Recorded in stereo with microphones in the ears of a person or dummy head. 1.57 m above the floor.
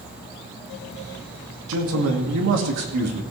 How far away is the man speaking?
About 2.5 m.